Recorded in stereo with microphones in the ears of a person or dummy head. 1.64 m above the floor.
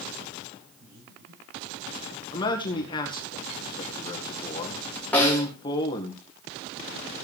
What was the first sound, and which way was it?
Breathing, 85° right.